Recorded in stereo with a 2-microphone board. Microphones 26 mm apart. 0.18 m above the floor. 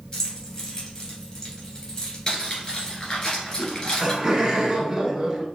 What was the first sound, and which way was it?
Keys jangling, 30° left (ahead or behind).